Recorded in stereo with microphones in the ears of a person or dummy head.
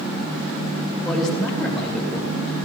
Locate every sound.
1.0 s a man speaking: centre (ahead or behind), 3.5 m